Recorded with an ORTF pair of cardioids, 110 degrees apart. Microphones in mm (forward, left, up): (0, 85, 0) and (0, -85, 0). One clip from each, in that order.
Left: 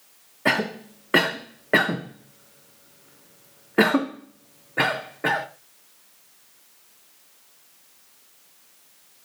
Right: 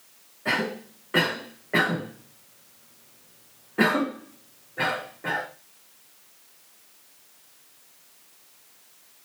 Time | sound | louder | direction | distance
0.5 | a cough | left 3 dB | 55° left | 0.5 m